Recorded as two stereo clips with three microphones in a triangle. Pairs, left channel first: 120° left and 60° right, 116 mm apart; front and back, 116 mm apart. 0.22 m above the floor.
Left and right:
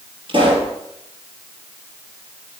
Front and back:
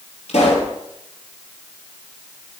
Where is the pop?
20° right, 3 m.